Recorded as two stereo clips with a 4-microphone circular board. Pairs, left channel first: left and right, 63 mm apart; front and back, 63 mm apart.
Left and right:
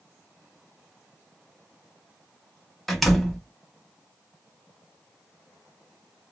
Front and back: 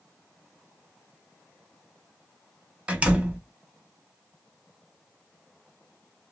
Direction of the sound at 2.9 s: 175° left.